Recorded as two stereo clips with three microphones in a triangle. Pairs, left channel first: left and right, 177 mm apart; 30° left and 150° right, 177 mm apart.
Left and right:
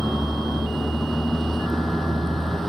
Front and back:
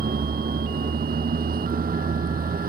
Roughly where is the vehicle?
Behind.